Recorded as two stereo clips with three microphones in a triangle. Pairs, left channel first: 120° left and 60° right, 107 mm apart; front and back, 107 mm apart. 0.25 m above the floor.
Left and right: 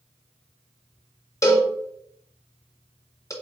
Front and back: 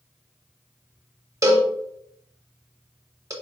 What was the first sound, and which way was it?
A cowbell, 150° left.